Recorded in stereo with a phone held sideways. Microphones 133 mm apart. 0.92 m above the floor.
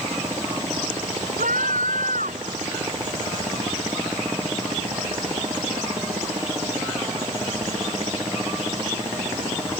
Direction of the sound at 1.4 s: 80° right.